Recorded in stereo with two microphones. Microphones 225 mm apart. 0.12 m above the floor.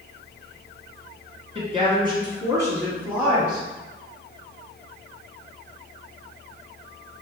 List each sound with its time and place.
1.6 s a woman speaking: 25° right (ahead or behind), 1.9 m; by 3.7 s centre (ahead or behind), 1.8 m